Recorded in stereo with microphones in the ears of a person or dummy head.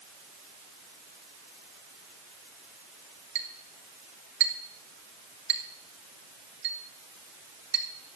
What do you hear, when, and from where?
3.4 s a clink: 70° right (ahead or behind), 3 m